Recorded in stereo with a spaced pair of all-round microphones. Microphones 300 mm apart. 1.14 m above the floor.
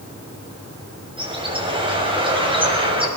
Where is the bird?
15° right (ahead or behind), 6 m.